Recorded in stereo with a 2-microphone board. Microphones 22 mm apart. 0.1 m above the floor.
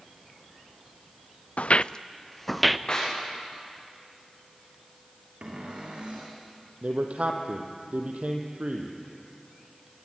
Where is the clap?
30° left (ahead or behind), 8 m.